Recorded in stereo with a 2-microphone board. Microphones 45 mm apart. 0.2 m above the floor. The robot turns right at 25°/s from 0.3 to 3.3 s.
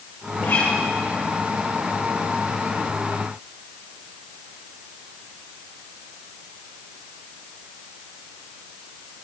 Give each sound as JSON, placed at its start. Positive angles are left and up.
{"t": 0.4, "sound": "a guitar", "side_deg": 60, "distance_m": 4.0}